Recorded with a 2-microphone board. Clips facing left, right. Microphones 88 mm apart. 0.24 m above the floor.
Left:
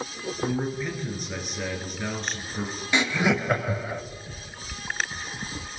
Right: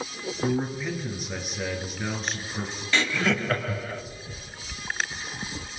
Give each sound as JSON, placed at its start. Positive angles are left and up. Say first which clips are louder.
{"t": 0.4, "sound": "a man speaking", "louder": "right 1 dB", "side_deg": -5, "distance_m": 3.5}
{"t": 2.9, "sound": "laughter", "louder": "left 2 dB", "side_deg": 15, "distance_m": 1.0}